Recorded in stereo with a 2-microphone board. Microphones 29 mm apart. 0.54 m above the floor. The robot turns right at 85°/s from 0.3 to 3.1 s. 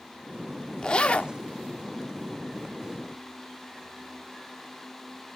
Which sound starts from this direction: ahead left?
A zipper, at 0.8 s.